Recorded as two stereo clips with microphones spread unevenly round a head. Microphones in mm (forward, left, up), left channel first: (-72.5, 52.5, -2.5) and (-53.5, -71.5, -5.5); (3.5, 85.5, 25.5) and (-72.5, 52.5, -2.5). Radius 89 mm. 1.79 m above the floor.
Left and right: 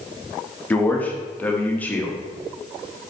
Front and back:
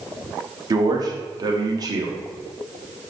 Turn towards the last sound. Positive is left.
turn(degrees=165)